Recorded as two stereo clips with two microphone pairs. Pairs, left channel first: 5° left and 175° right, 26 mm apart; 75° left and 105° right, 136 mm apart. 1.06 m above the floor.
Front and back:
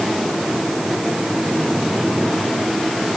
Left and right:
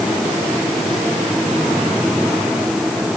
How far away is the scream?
No scream in this recording.